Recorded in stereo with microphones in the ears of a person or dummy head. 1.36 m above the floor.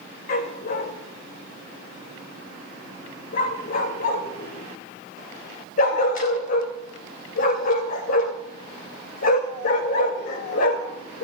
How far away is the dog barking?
About 2 m.